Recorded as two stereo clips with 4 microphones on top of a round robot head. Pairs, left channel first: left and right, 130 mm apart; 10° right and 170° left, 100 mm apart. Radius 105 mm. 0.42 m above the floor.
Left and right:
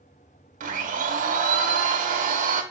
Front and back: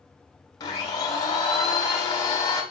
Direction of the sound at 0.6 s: 65° right.